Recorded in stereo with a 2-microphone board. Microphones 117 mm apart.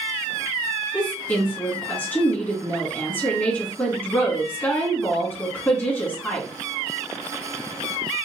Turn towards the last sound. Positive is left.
turn(degrees=15)  # may be behind; listen again after turning